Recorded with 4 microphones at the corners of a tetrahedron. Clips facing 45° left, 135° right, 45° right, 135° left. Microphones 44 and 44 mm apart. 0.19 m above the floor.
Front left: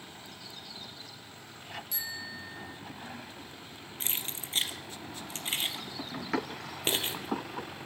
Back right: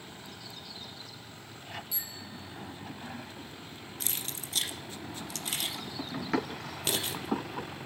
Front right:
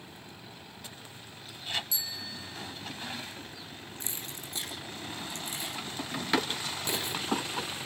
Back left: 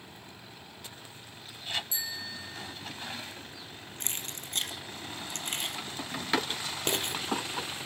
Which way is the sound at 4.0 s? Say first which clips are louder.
Front left 2 dB, back left 3 dB; 105° left.